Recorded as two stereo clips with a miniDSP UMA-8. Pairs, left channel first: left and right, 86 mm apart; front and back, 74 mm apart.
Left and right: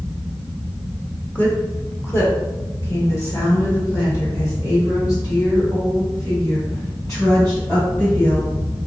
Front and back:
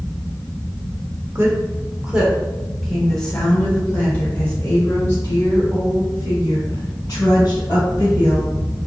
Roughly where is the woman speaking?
Behind left.